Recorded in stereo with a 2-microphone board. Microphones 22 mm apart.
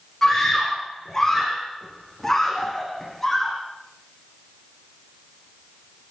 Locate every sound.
0.2 s a scream: 20° left (ahead or behind), 9 m